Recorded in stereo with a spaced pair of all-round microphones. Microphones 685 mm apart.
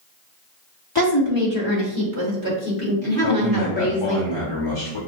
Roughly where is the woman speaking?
Left.